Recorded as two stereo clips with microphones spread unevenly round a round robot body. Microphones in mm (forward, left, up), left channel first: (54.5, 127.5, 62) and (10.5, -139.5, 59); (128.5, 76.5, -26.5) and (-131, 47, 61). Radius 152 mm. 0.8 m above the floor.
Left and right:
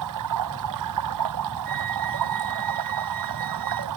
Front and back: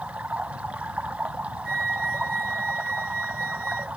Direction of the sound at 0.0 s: 90° right.